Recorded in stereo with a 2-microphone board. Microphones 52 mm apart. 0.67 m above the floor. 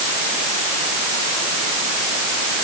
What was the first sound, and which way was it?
Only background noise.